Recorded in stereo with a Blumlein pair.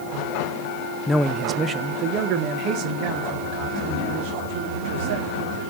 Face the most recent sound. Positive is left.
turn(degrees=-50)